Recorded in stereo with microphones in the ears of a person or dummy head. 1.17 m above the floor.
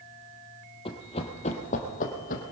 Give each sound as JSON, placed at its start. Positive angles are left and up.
{"t": 0.8, "sound": "running footsteps", "side_deg": 30, "distance_m": 1.6}